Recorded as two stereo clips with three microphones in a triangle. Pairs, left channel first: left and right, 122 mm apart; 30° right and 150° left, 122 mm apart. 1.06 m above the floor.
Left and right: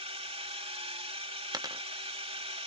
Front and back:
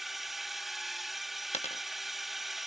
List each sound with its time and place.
0.0 s a drone: 120° right
1.5 s a dropped coin: 35° right